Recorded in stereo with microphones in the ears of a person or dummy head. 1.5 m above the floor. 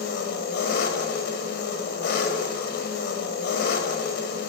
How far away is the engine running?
About 4.5 m.